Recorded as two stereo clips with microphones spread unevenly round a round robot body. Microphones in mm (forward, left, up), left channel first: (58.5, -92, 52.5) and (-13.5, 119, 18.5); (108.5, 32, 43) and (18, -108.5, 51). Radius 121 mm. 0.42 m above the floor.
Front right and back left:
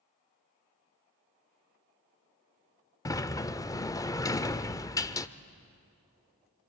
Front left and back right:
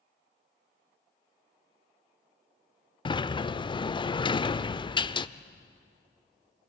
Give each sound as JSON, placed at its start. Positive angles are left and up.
{"t": 3.0, "sound": "a sliding door", "azimuth_deg": 5, "distance_m": 0.7}